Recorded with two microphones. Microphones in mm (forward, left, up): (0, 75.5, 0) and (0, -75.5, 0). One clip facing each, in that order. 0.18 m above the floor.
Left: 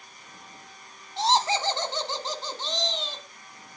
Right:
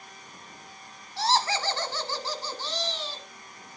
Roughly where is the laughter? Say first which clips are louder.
Left 2 dB; left.